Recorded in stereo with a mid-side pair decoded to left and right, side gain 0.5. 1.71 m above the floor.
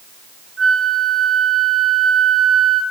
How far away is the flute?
About 2.5 m.